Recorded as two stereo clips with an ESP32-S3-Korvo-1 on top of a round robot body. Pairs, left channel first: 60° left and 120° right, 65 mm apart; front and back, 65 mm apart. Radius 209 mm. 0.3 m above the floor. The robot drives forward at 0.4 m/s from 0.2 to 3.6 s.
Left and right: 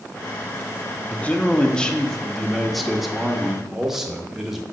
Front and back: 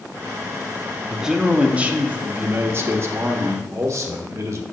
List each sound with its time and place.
1.1 s a man speaking: 105° left, 1.2 m; by 4.6 s 155° left, 1.6 m